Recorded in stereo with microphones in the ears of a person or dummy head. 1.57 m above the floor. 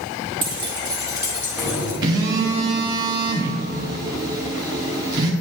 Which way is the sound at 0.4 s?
25° right (ahead or behind).